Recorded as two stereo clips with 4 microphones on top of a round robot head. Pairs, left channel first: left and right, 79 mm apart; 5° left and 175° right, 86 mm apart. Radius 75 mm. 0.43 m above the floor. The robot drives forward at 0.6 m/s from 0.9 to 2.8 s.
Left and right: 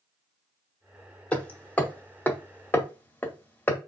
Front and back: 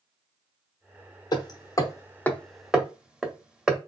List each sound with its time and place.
1.3 s hammering: 15° left, 1.0 m; by 3.8 s 120° left, 0.7 m